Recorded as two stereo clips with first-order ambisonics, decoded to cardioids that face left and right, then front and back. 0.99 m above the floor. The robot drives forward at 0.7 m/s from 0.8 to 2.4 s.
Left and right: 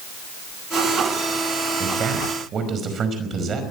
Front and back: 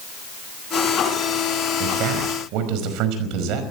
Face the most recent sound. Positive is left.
turn(degrees=-155)